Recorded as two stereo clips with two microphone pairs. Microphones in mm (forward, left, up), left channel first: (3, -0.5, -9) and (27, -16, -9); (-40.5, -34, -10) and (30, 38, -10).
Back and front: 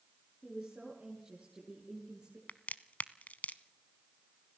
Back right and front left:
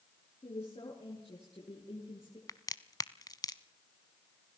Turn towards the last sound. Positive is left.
turn(degrees=175)